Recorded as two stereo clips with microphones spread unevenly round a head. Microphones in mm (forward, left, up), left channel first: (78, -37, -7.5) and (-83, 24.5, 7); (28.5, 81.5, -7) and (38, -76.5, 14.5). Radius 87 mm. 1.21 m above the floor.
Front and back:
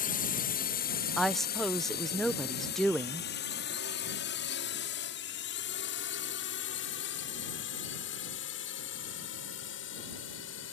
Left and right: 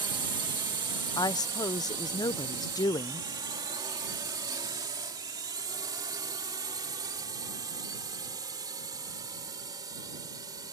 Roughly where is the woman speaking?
Ahead left.